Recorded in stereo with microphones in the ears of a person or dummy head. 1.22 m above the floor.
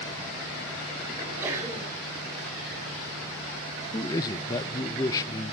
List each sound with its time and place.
1.2 s a sneeze: 15° right (ahead or behind), 8 m
3.9 s a man speaking: 20° left (ahead or behind), 0.8 m